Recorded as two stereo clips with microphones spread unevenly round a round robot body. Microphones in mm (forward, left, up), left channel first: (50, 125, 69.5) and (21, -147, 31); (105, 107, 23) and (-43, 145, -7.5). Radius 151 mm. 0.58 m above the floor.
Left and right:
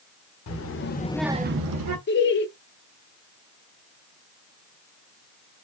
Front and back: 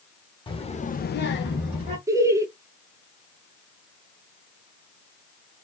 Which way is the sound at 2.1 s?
125° left.